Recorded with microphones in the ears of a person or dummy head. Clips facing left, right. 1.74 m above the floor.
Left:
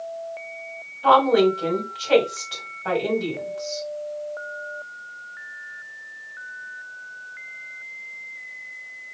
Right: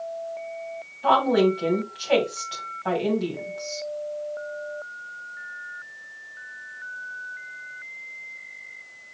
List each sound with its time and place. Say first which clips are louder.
1.0 s a woman speaking: left 3 dB; 5° right (ahead or behind), 2.5 m